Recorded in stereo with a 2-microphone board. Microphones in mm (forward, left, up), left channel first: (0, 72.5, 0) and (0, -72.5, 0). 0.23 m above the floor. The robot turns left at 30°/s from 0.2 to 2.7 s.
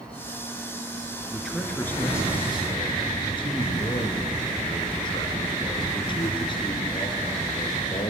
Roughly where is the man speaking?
Behind.